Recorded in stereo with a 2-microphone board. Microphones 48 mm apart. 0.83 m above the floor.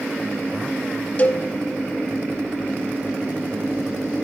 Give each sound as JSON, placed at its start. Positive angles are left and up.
{"t": 1.2, "sound": "a cowbell", "side_deg": 35, "distance_m": 0.8}